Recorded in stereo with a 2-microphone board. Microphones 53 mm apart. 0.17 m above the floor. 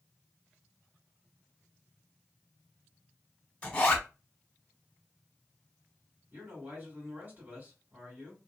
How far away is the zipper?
About 1.2 m.